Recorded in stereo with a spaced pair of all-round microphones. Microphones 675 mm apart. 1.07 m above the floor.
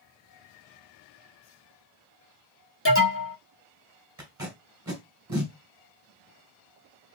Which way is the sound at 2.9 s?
20° left (ahead or behind).